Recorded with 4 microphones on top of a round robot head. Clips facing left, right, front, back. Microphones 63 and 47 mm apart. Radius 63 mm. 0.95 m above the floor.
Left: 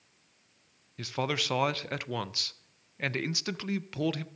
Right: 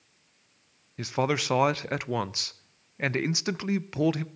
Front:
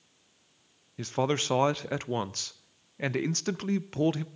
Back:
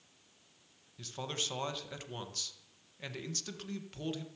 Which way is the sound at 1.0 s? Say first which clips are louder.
Right 5 dB, front 12 dB; 25° right.